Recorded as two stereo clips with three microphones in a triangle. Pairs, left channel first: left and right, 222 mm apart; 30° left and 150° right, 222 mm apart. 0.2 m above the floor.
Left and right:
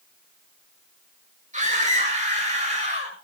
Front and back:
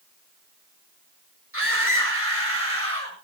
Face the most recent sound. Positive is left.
turn(degrees=-150)